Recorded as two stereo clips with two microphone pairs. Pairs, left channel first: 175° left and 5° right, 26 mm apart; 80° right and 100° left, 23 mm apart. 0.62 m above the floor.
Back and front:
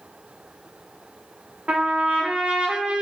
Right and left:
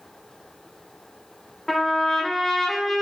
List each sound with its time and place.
1.7 s a trumpet: 10° right, 1.1 m